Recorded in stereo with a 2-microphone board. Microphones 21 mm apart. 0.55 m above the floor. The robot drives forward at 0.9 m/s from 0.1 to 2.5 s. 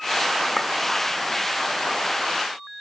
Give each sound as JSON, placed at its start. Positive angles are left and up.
{"t": 0.6, "sound": "a clink", "side_deg": -5, "distance_m": 0.9}